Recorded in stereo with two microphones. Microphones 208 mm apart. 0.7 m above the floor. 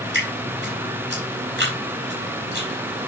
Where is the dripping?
65° right (ahead or behind), 4.5 m.